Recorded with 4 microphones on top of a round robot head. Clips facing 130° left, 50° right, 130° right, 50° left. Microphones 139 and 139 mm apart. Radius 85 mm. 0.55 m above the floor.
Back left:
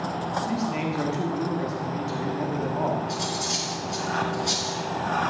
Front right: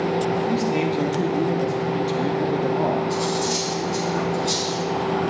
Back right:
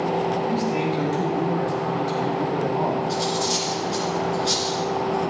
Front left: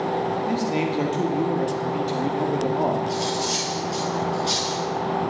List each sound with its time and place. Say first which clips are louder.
0.5 s a man speaking: front right 6 dB, even; 5° right, 1.3 m
3.1 s cutlery clinking: front right 7 dB, back right 1 dB; 140° left, 5 m